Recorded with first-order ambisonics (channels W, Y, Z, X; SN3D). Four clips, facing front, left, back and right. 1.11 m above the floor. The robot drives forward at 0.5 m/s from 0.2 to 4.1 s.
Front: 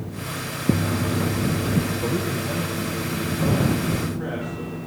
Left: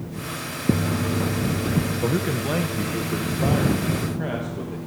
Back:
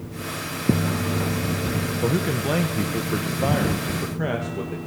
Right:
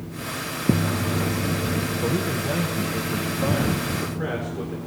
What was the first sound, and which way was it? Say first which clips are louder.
A man speaking: left 1 dB, back 2 dB; 135° left.